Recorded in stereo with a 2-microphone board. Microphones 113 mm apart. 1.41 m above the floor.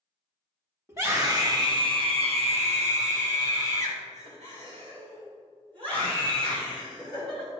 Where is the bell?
I don't hear a bell.